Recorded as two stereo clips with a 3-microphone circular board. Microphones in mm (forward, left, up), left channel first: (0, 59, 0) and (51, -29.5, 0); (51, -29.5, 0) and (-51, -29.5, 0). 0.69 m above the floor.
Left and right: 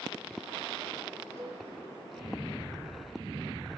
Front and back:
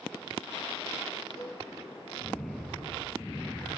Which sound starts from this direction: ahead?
A cowbell, at 1.4 s.